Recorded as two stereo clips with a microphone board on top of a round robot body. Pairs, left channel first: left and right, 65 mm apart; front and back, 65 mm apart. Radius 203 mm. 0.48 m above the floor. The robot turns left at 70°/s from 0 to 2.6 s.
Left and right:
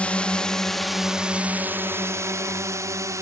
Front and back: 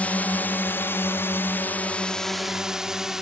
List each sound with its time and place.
0.0 s a drone: 40° left; by 3.2 s 100° right